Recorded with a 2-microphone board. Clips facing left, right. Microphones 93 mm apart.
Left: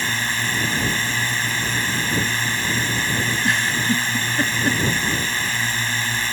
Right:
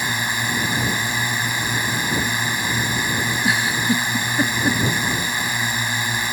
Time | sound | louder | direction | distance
0.0 | a drone | right 1 dB | 15° right (ahead or behind) | ?
3.4 | a giggle | right 2 dB | 10° right (ahead or behind) | ?